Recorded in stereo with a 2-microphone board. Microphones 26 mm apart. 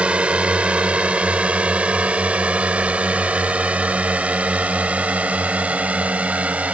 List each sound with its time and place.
0.0 s a drone: 50° right (ahead or behind); by 6.7 s 65° right (ahead or behind)